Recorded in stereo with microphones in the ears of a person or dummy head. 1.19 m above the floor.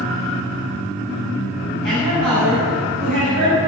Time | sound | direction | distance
1.8 | a woman speaking | 70° right (ahead or behind) | 7 m